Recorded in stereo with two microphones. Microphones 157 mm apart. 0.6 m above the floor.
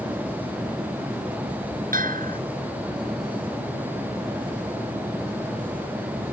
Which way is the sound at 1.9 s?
65° right (ahead or behind).